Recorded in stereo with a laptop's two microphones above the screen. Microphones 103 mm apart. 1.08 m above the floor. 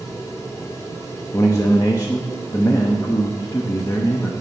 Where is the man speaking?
30° left (ahead or behind), 0.6 m.